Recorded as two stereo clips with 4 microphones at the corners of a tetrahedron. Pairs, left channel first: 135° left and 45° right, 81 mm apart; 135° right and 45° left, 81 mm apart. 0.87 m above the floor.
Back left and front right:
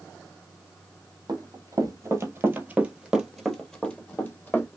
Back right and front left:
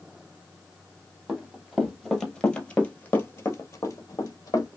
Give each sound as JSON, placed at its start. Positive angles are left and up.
{"t": 1.3, "sound": "running footsteps", "azimuth_deg": -30, "distance_m": 1.2}